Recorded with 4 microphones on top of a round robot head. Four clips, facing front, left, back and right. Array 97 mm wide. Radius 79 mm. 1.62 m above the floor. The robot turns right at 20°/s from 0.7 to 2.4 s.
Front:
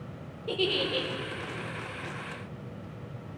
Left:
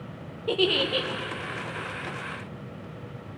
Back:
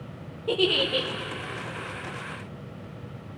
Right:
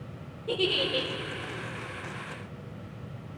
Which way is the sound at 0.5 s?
105° left.